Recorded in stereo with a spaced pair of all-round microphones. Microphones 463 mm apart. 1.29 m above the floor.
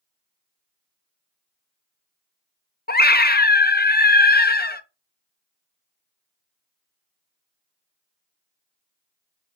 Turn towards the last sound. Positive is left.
turn(degrees=20)  # may be behind; listen again after turning